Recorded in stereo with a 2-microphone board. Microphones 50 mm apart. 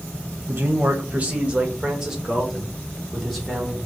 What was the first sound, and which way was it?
A man speaking, 45° right (ahead or behind).